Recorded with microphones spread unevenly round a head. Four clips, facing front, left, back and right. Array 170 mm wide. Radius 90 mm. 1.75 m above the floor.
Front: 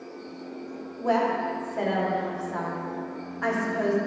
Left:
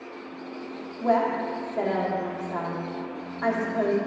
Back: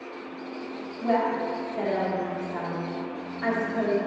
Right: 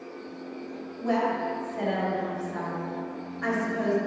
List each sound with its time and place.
1.0 s a woman speaking: 65° left, 1.9 m